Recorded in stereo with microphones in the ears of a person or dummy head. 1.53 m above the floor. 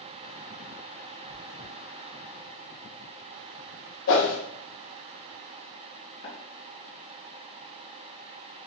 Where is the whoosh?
60° left (ahead or behind), 0.9 m.